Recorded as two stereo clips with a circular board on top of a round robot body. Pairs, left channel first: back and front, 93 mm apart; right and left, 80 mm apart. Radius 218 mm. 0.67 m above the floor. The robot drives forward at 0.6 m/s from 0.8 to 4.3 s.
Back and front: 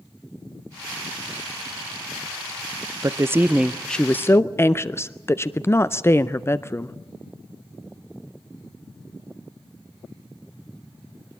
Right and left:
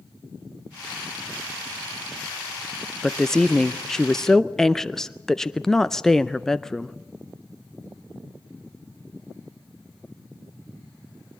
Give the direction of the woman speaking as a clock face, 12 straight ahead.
12 o'clock.